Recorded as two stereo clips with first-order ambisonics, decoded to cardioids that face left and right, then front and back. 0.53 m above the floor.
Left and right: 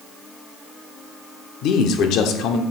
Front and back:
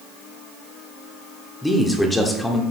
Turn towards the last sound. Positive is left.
turn(degrees=80)